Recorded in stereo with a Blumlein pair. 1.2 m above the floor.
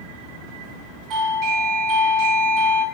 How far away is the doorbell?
About 3.5 m.